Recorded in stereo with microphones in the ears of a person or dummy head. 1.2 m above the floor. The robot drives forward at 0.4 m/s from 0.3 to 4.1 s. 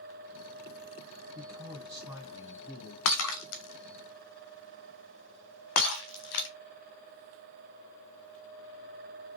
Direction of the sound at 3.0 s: 75° left (ahead or behind).